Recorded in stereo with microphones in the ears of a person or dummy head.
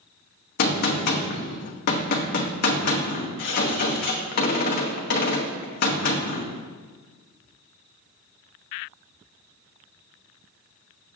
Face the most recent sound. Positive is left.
turn(degrees=55)  # may be behind; listen again after turning